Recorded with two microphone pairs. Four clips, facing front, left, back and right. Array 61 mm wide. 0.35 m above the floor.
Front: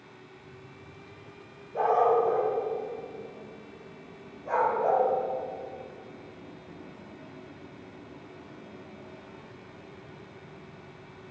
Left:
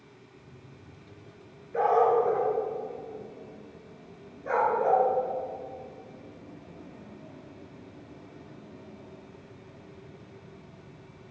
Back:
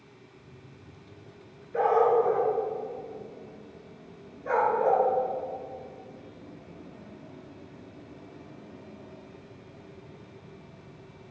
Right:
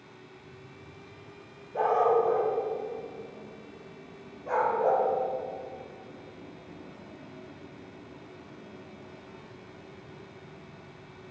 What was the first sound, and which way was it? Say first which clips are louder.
A dog barking: left 1 dB, back 1 dB; 140° left.